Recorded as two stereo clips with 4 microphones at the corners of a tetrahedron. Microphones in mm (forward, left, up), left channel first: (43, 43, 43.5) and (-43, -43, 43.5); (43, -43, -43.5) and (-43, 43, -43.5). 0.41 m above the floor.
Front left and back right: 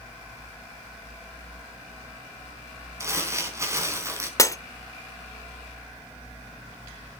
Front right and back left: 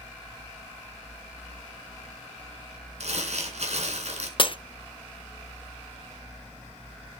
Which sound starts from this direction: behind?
Crumpling, at 3.0 s.